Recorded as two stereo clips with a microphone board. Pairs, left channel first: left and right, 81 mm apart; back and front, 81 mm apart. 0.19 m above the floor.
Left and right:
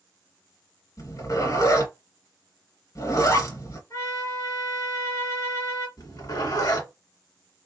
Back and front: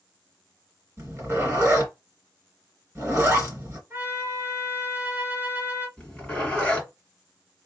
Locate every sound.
1.0 s a zipper: 55° left, 2.5 m
3.9 s a trumpet: 55° left, 2.5 m
6.0 s a zipper: 100° left, 2.5 m